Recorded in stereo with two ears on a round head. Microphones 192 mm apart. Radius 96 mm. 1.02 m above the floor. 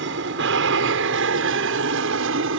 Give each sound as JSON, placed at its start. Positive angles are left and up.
{"t": 0.0, "sound": "an aircraft", "side_deg": -60}